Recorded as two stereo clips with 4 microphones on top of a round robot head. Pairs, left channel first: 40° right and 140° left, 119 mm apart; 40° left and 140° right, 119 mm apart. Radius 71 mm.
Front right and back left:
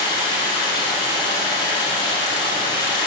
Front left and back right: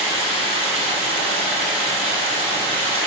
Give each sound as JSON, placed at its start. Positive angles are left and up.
{"t": 0.0, "sound": "running water", "azimuth_deg": -95, "distance_m": 1.9}